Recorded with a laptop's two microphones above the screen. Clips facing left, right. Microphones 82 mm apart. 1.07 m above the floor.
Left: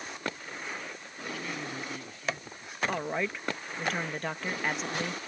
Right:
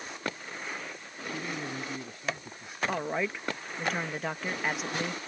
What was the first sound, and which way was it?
A man speaking, 20° right (ahead or behind).